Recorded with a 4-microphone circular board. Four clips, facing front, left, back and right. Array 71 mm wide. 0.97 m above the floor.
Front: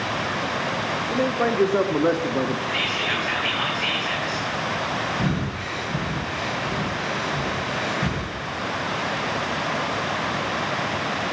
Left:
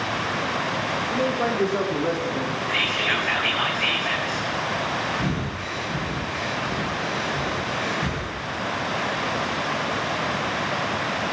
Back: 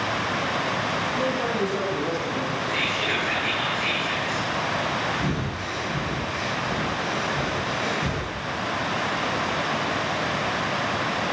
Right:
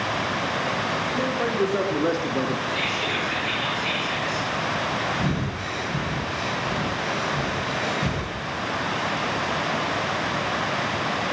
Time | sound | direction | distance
1.1 | a man speaking | 10° left | 2 m
2.7 | whispering | 75° left | 3.5 m
5.2 | breathing | 10° right | 5 m